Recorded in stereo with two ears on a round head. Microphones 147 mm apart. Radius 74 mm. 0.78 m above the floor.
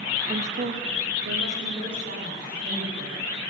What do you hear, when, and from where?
0.3 s a woman speaking: 35° right (ahead or behind), 0.5 m; by 3.3 s 80° right, 3 m